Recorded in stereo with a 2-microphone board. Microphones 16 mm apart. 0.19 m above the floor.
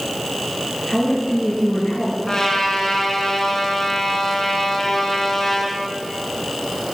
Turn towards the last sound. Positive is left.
turn(degrees=35)  # may be behind; listen again after turning